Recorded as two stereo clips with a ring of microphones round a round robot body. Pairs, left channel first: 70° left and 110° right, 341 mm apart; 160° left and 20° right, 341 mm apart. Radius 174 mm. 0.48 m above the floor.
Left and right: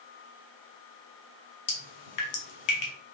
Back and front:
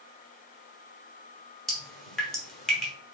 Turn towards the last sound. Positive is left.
turn(degrees=70)